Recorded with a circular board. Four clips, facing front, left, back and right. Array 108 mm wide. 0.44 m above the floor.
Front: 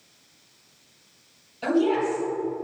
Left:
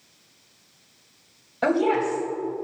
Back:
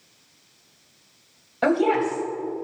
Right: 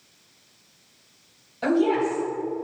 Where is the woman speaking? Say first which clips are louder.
Even, back 2 dB; 150° left, 2.5 m.